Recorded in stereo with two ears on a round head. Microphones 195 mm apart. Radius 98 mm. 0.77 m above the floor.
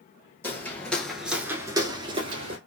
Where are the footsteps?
10° left (ahead or behind), 1.1 m; by 2.6 s 25° right (ahead or behind), 1.0 m.